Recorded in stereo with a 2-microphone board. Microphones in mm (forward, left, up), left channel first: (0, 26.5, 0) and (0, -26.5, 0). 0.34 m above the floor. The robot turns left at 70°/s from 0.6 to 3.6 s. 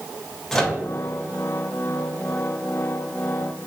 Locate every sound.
0.5 s a microwave: 10° left (ahead or behind), 0.8 m; by 0.8 s 5° left (ahead or behind), 0.8 m